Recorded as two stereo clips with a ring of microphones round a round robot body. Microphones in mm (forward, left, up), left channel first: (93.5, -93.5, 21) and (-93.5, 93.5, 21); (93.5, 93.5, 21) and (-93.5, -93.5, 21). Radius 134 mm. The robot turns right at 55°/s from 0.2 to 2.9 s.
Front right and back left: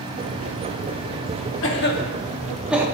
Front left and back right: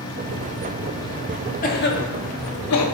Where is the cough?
10° right, 1.5 m; by 2.9 s 55° left, 1.5 m.